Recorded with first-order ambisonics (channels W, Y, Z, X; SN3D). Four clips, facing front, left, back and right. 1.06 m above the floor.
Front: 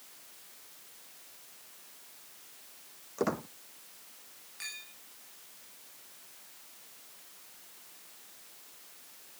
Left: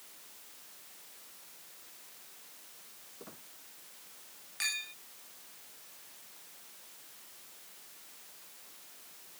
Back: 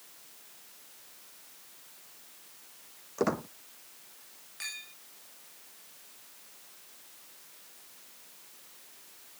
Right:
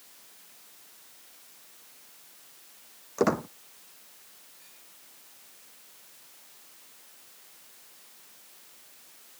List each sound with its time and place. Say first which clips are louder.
3.2 s a squeak: right 28 dB, back 2 dB; 100° right
4.6 s a clink: left 21 dB, back 2 dB; 100° left